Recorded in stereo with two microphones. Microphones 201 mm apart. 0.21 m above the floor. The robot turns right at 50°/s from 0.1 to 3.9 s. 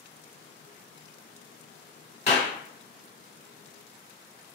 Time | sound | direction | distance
2.3 | a clap | 35° left (ahead or behind) | 1.0 m